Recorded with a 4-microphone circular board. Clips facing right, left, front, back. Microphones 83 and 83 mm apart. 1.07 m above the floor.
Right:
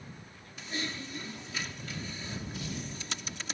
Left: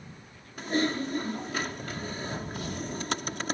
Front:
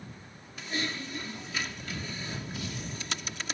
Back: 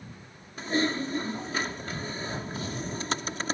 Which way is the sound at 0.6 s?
130° left.